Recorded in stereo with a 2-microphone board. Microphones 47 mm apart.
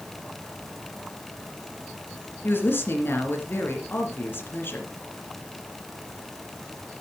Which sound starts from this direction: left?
A woman speaking, at 2.4 s.